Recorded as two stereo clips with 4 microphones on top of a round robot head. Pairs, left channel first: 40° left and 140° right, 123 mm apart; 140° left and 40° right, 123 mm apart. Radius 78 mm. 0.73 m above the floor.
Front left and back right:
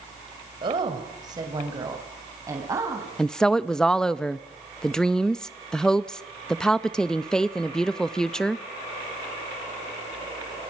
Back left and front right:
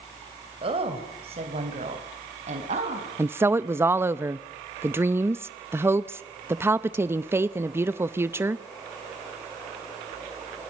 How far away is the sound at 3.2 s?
About 0.7 m.